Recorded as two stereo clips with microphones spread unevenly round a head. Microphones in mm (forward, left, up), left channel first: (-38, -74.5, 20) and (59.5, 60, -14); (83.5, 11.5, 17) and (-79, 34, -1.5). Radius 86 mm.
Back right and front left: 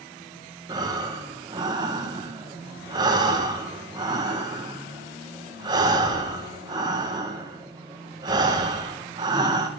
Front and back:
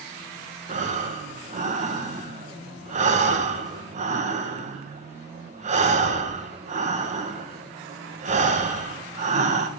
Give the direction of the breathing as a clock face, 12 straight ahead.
8 o'clock.